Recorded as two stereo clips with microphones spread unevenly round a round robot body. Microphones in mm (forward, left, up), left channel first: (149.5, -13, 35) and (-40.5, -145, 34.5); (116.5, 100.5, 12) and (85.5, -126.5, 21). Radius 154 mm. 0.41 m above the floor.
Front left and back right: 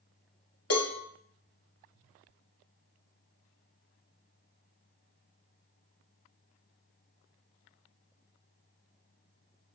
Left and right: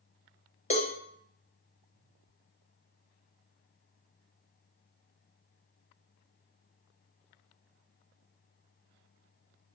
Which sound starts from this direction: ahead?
A cowbell, at 0.7 s.